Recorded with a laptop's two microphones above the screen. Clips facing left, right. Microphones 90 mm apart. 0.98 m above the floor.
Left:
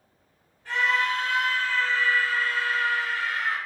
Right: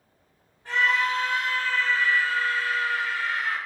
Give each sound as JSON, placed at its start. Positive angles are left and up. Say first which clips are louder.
{"t": 0.7, "sound": "a scream", "louder": "right 1 dB", "side_deg": -25, "distance_m": 1.0}